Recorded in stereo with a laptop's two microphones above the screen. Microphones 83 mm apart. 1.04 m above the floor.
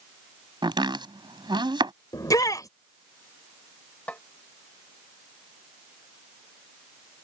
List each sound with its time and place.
0.6 s chopping: 70° right (ahead or behind)
2.1 s a shout: 45° left (ahead or behind)
4.1 s a snare drum: 15° left (ahead or behind)